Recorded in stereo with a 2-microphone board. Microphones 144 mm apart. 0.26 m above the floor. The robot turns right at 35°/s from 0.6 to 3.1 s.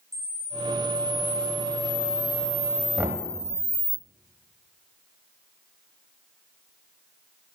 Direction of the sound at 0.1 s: 20° right.